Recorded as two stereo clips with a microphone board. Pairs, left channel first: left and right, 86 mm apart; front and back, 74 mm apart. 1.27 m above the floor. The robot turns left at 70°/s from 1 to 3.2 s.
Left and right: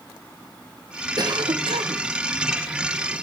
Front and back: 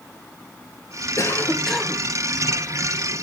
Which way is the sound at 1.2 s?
50° right.